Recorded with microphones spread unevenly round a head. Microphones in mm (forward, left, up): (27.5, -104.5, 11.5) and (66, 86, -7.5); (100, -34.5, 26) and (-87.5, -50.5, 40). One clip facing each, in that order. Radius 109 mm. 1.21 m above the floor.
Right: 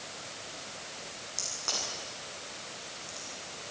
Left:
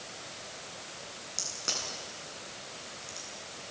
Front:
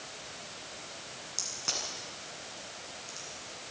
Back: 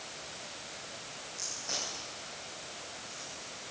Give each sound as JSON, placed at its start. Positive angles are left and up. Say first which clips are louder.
{"t": 1.4, "sound": "a crack", "louder": "right 1 dB, even", "azimuth_deg": 15, "distance_m": 9.0}